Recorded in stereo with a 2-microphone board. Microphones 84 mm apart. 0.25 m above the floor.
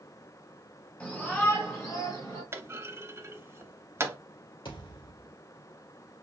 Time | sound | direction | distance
1.0 | a shout | 15° left (ahead or behind) | 1.7 m
2.5 | a clunk | 35° right (ahead or behind) | 0.7 m
4.7 | a thud | 80° left | 2.5 m